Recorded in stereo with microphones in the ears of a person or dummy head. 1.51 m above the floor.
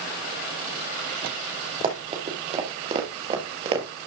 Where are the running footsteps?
35° right (ahead or behind), 3 m; by 3.9 s 30° right (ahead or behind), 2.0 m.